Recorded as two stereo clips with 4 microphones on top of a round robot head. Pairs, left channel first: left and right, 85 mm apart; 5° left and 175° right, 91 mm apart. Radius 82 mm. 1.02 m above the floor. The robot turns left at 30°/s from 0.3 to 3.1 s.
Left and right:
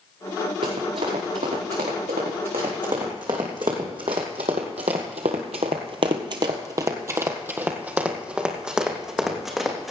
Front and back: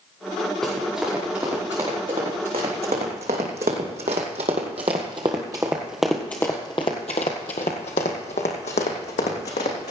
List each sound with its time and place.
0.6 s running footsteps: 80° right, 5 m; by 9.9 s straight ahead, 3.5 m